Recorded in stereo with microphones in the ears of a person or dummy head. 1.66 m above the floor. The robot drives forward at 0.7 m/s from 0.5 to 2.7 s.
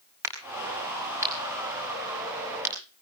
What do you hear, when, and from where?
0.2 s a crack: 15° right (ahead or behind), 5 m; by 2.7 s 10° right (ahead or behind), 6.5 m